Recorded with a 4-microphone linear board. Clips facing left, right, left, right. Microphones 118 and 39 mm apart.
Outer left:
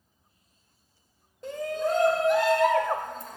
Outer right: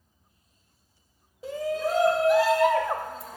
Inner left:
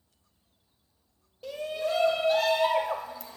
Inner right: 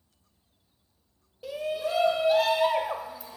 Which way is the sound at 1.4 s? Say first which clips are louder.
Outer right 1 dB, inner right 1 dB; 5° right (ahead or behind).